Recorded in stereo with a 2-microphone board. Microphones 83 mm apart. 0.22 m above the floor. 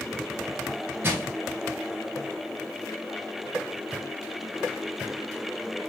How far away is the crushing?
About 1.5 m.